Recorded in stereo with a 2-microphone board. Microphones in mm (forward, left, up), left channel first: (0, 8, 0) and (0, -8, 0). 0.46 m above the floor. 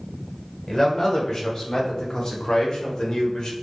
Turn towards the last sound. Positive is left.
turn(degrees=50)  # may be behind; listen again after turning